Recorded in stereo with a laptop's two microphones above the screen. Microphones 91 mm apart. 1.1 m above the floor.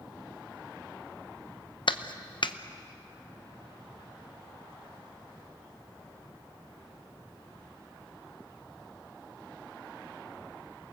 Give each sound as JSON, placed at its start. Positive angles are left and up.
{"t": 1.9, "sound": "a clap", "side_deg": 60, "distance_m": 0.8}